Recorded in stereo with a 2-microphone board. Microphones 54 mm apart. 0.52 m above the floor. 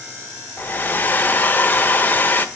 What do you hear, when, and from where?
0.6 s a hair dryer: 30° left (ahead or behind), 1.0 m